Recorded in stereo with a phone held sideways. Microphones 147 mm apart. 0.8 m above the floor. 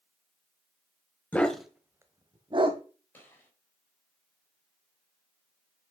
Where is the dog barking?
10° left (ahead or behind), 1.0 m; by 2.8 s 40° right (ahead or behind), 1.3 m.